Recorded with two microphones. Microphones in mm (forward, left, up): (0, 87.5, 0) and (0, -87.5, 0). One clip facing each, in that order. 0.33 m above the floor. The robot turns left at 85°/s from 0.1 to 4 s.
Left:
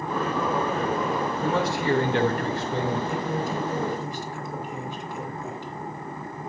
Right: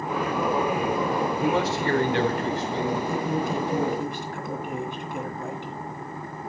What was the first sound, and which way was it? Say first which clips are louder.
A man speaking: even; 155° right.